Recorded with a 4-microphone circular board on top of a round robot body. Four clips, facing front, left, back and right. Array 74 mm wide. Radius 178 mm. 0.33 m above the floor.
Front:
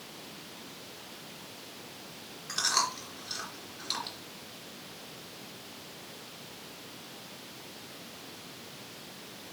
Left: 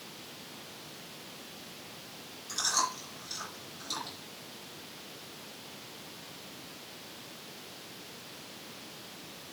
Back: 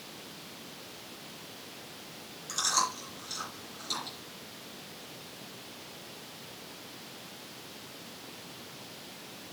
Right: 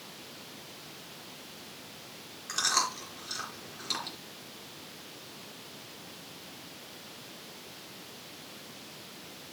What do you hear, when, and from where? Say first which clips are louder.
2.5 s chewing: right 2 dB, even; 65° right, 4.5 m